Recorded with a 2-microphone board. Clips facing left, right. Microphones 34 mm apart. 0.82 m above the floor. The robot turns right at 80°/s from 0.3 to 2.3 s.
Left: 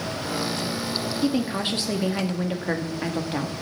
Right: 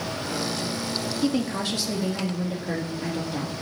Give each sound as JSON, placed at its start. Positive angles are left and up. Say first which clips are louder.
{"t": 1.2, "sound": "a woman speaking", "louder": "left 1 dB", "azimuth_deg": 0, "distance_m": 1.8}